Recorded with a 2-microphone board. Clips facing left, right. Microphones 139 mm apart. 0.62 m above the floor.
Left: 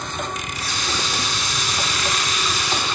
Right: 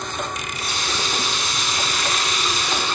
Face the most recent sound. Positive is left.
turn(degrees=-55)  # may be behind; listen again after turning